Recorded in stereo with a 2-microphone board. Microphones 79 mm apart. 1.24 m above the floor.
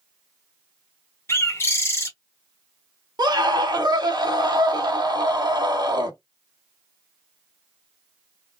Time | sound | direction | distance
1.3 | a bird | 30° left (ahead or behind) | 1.0 m
3.2 | a scream | 60° right (ahead or behind) | 1.3 m